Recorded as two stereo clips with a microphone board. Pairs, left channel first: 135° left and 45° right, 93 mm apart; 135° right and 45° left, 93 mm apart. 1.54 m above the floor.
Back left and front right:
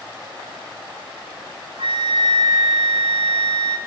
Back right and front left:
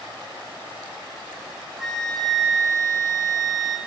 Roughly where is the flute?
Ahead right.